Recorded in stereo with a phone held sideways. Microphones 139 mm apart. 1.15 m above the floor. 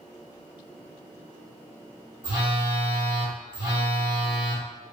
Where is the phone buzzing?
30° right (ahead or behind), 1.0 m.